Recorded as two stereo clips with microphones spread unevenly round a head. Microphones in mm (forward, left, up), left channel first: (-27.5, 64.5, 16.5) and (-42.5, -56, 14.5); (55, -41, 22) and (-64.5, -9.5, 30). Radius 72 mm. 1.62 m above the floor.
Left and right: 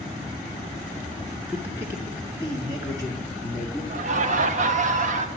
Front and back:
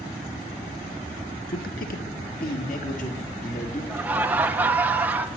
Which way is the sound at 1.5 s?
15° right.